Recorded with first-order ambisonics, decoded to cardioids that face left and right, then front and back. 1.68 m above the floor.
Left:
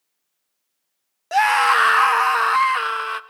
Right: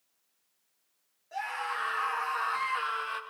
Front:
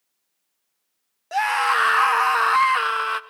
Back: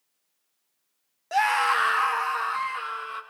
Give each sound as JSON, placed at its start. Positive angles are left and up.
{"t": 1.3, "sound": "a scream", "azimuth_deg": 95, "distance_m": 0.9}